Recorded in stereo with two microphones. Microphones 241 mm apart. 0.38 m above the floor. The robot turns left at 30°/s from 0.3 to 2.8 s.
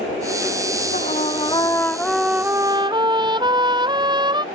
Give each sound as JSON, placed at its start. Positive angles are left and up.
{"t": 0.9, "sound": "a trumpet", "azimuth_deg": 35}